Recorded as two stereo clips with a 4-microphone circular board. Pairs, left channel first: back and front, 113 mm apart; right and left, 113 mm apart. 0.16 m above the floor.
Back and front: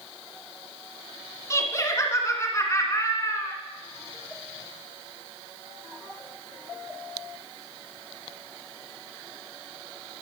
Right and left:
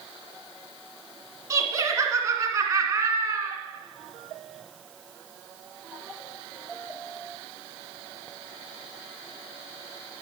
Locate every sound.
1.5 s laughter: 135° left, 1.8 m